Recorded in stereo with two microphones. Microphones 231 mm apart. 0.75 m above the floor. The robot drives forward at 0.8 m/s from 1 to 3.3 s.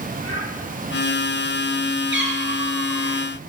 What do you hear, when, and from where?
0.2 s a child speaking: 70° right (ahead or behind), 7 m
2.1 s a cat meowing: 55° right (ahead or behind), 4.5 m; by 3.2 s 45° right (ahead or behind), 5 m